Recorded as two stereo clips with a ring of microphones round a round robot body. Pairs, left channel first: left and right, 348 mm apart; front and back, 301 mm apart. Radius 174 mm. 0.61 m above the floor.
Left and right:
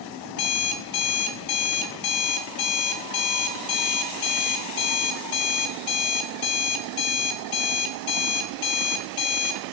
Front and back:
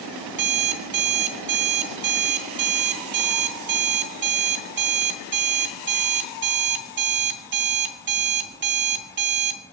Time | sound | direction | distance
0.3 | an alarm clock | 125° left | 1.1 m